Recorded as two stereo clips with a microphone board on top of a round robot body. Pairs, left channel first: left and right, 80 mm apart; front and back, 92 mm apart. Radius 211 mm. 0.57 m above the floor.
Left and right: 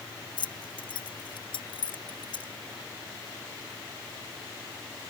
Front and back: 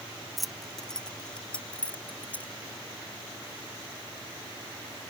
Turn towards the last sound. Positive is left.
turn(degrees=75)